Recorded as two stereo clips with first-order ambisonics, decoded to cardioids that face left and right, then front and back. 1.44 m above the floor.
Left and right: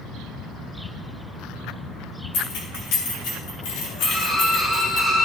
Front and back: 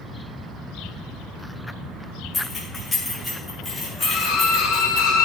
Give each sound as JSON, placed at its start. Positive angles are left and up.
{"t": 2.3, "sound": "keys jangling", "azimuth_deg": 75, "distance_m": 3.0}
{"t": 4.0, "sound": "a violin", "azimuth_deg": 25, "distance_m": 4.5}